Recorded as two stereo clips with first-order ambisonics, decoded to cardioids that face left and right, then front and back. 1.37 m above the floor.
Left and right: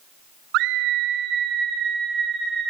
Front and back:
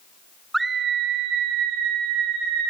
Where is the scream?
95° right, 0.6 m; by 2.7 s 155° right, 3 m.